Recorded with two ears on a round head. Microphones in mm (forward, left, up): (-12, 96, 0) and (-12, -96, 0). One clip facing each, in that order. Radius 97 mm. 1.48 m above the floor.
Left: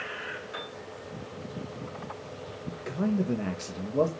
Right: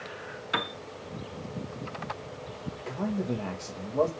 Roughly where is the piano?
Right.